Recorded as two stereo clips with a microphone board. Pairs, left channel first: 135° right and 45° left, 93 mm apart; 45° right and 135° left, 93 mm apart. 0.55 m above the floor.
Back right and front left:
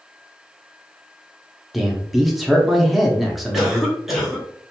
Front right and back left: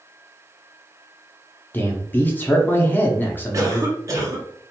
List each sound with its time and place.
1.7 s a man speaking: 40° right, 0.6 m
3.5 s a cough: 130° left, 0.9 m